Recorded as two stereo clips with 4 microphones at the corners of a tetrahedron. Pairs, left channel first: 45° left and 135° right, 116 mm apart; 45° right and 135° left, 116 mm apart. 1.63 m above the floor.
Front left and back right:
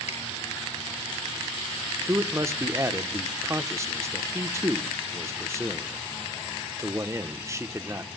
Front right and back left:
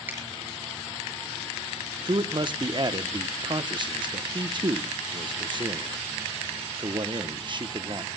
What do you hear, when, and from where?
0.1 s a finger snap: 60° left, 9.5 m
2.0 s a man speaking: 170° left, 0.8 m